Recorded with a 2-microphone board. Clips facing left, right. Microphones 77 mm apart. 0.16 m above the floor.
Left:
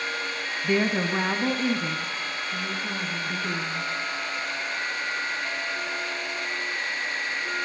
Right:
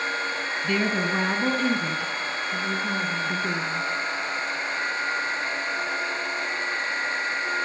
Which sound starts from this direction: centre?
A woman speaking, at 0.6 s.